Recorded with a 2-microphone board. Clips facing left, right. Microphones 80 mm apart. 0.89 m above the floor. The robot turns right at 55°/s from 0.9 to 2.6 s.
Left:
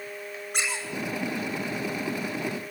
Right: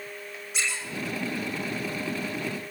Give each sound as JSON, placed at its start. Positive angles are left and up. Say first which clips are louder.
{"t": 0.5, "sound": "a squeak", "louder": "left 1 dB", "side_deg": 50, "distance_m": 6.0}